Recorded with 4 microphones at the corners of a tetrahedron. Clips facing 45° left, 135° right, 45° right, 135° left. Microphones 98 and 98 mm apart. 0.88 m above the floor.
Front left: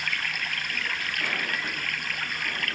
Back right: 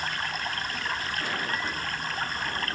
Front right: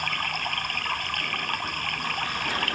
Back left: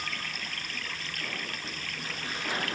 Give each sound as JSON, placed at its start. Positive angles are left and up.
{"t": 0.0, "sound": "running water", "azimuth_deg": -75}